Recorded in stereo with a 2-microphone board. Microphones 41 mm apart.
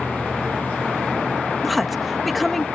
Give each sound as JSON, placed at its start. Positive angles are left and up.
{"t": 1.6, "sound": "a woman speaking", "side_deg": 0}